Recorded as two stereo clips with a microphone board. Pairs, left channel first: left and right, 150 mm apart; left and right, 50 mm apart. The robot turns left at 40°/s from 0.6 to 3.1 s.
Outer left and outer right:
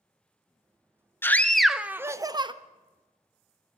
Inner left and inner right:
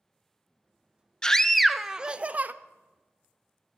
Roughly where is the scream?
Ahead.